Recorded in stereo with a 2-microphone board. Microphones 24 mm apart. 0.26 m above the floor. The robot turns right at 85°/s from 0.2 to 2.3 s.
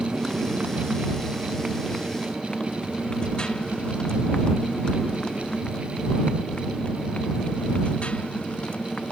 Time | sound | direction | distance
0.0 | a motorcycle | 25° right (ahead or behind) | ?